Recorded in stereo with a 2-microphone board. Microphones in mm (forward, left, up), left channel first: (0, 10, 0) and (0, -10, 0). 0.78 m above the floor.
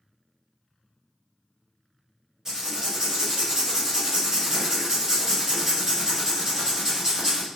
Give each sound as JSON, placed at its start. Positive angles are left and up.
{"t": 2.5, "sound": "writing", "side_deg": -30, "distance_m": 1.7}